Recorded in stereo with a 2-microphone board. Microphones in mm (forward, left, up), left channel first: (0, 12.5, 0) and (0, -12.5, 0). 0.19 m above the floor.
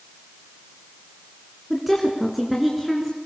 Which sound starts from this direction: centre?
A woman speaking, at 1.7 s.